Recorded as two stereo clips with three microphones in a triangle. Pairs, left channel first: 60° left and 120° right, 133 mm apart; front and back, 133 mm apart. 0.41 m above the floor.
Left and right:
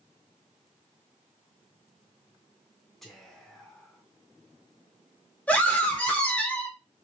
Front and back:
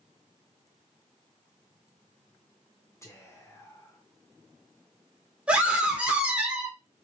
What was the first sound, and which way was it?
Whispering, 25° right.